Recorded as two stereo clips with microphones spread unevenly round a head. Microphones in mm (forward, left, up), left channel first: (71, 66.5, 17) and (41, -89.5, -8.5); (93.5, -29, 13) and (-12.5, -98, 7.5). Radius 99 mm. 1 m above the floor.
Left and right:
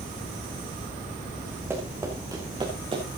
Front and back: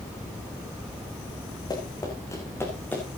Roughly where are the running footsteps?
Ahead right.